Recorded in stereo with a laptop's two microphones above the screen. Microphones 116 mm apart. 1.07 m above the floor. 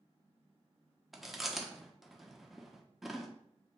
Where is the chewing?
Centre (ahead or behind), 0.6 m.